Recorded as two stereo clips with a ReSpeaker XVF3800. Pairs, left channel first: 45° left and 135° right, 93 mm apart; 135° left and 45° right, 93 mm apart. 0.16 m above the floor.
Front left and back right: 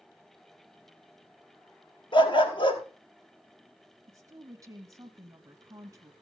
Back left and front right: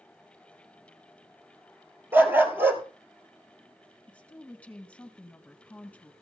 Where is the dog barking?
20° left, 1.6 m.